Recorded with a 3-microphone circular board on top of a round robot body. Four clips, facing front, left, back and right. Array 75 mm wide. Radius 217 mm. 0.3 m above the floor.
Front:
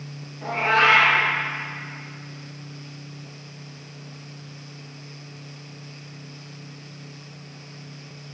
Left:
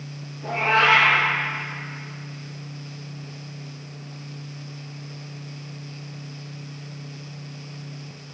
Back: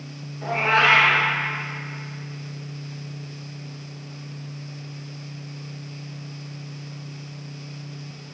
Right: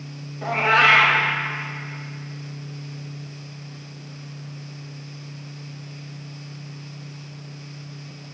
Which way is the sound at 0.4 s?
90° right.